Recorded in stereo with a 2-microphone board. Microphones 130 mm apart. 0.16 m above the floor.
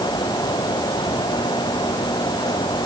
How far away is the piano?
I don't hear a piano.